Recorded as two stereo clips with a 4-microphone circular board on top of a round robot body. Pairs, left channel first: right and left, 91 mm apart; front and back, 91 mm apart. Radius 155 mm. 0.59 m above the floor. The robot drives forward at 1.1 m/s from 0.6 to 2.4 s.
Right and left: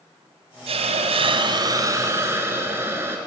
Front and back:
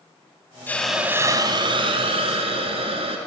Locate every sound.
0.7 s a hiss: 70° left, 0.8 m; by 3.2 s 155° left, 1.8 m